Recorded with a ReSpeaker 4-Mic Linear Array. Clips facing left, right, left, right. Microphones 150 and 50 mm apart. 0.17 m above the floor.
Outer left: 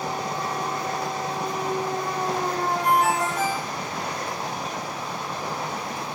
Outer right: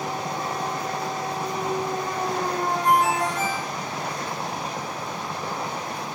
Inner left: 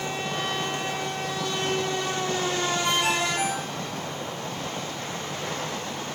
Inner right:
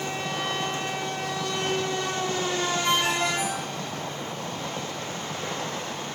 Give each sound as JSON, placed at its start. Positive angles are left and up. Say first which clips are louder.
{"t": 2.8, "sound": "a ringtone", "louder": "outer right 1 dB, inner right 1 dB", "side_deg": -35, "distance_m": 8.0}